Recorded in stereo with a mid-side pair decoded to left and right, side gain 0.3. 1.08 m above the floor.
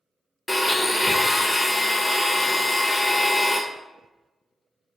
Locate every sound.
0.5 s a blender: 25° left, 0.5 m